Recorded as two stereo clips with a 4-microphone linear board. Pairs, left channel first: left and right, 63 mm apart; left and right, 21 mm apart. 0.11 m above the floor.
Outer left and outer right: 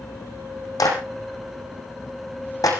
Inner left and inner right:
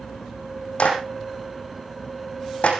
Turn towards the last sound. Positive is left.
turn(degrees=75)  # may be behind; listen again after turning